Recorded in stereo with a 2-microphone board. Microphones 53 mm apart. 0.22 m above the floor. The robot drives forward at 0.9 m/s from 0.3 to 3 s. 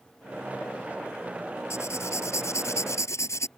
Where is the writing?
70° left (ahead or behind); by 3.5 s 75° left (ahead or behind).